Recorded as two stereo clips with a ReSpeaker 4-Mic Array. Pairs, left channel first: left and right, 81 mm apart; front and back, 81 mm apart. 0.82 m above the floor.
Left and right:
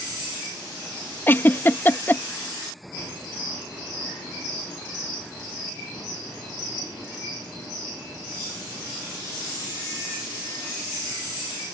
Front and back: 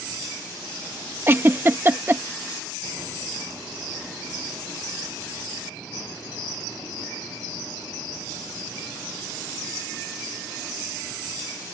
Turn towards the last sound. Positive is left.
turn(degrees=135)